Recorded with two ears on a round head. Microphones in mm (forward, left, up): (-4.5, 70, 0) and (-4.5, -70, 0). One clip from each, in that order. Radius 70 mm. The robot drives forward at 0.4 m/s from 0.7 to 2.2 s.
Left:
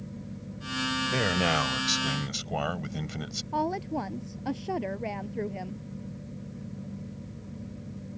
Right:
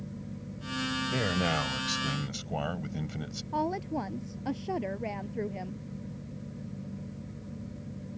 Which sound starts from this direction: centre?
A woman speaking, at 3.5 s.